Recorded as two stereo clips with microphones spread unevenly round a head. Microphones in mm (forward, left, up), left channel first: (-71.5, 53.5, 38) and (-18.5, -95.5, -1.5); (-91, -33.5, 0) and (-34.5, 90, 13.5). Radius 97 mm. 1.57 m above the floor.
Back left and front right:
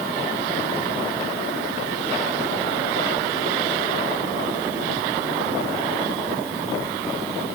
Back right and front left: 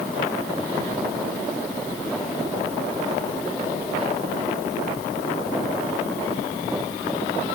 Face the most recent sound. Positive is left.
No sound to turn to.